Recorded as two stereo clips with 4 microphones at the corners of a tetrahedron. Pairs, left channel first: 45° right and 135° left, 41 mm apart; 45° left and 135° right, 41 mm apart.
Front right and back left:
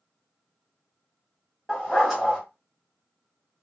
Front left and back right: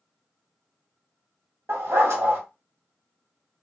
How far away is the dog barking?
About 1.4 m.